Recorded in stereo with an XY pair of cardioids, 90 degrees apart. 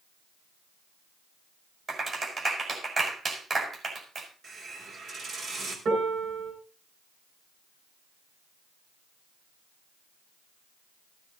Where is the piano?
70° right, 9 m.